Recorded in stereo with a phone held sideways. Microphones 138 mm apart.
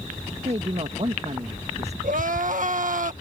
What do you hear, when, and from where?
0.5 s a man speaking: 50° right (ahead or behind)
2.0 s crying: 75° right (ahead or behind)